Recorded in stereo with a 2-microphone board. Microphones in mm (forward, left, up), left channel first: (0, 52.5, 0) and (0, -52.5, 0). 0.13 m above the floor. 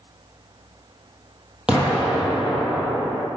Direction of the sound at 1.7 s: 10° right (ahead or behind).